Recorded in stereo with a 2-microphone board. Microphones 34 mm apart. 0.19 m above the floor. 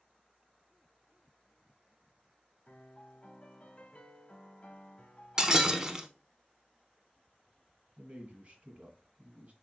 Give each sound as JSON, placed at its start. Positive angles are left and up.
{"t": 2.7, "sound": "a piano", "side_deg": 30, "distance_m": 1.1}
{"t": 5.4, "sound": "breaking glass", "side_deg": -20, "distance_m": 0.6}
{"t": 8.0, "sound": "a man speaking", "side_deg": -35, "distance_m": 1.8}